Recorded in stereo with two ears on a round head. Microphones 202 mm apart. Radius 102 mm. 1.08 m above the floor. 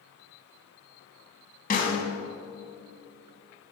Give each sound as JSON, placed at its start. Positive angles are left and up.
{"t": 1.7, "sound": "a snare drum", "side_deg": 40, "distance_m": 1.6}